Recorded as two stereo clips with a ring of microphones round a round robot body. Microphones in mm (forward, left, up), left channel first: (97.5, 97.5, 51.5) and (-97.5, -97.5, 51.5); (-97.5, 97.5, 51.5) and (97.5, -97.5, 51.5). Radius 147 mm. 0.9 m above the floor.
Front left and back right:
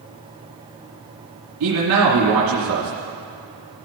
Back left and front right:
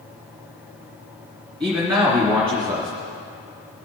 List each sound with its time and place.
1.6 s a man speaking: 120° right, 2.5 m